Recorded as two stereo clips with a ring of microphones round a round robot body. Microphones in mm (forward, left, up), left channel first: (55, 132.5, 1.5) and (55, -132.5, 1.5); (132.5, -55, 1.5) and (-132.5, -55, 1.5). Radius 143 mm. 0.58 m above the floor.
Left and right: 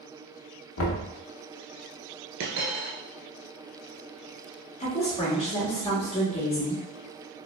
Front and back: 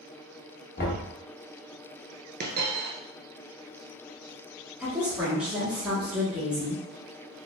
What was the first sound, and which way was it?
Knocking, 60° left.